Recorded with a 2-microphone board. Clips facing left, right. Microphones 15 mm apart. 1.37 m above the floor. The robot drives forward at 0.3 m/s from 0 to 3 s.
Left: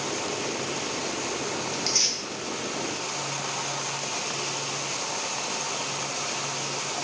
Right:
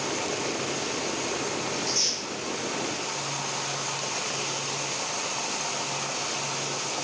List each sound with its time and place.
1.7 s tearing paper: 75° left (ahead or behind), 0.8 m; by 2.2 s 70° left (ahead or behind), 0.9 m